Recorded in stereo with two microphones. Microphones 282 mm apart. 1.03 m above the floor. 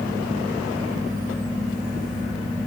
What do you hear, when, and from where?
Only background noise.